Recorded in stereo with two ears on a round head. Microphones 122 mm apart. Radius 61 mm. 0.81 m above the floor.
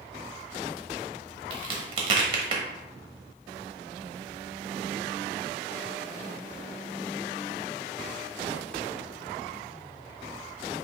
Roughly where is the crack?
Right.